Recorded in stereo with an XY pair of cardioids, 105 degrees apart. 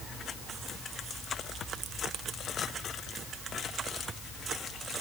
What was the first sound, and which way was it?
Only background noise.